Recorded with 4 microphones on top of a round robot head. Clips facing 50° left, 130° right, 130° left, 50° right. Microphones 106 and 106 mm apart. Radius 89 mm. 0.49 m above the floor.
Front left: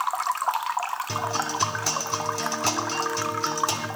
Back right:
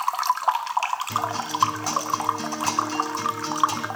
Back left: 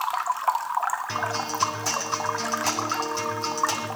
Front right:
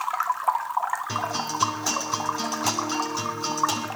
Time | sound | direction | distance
1.1 | a guitar | 30° left | 4 m